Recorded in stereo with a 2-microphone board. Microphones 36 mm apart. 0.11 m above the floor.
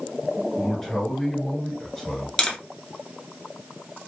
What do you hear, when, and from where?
0.6 s a man speaking: 10° left (ahead or behind), 1.1 m
2.4 s tapping: 20° left (ahead or behind), 0.5 m